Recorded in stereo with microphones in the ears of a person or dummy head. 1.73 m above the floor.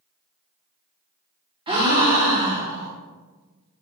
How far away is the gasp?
About 0.7 m.